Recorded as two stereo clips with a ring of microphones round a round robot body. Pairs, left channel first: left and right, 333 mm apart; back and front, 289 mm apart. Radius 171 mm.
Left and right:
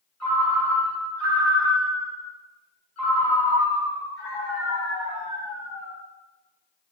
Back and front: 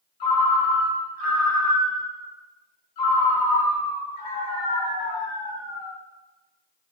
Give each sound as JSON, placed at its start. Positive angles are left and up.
{"t": 0.2, "sound": "a ringtone", "azimuth_deg": 175, "distance_m": 0.9}